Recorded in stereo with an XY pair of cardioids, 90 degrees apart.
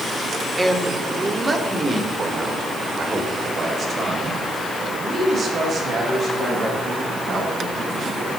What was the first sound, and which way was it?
A man speaking, 10° right.